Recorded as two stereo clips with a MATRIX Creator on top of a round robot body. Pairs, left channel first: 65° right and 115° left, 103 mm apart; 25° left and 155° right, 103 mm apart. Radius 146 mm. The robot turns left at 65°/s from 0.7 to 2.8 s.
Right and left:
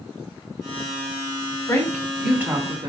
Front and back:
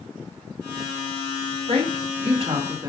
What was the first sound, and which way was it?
A woman speaking, 130° right.